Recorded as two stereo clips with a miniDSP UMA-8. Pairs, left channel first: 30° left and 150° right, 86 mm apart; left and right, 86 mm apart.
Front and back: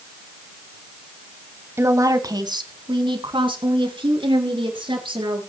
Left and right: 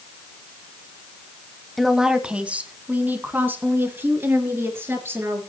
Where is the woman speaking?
Straight behind, 1.2 m; by 5.4 s 150° right, 4.5 m.